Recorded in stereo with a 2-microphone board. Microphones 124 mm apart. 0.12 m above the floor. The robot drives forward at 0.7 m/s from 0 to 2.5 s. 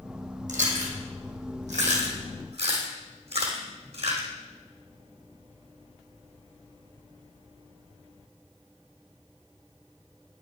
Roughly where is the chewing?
Right.